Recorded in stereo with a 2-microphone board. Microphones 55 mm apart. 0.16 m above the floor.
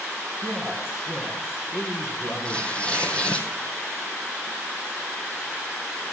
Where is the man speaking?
45° left (ahead or behind), 3.5 m.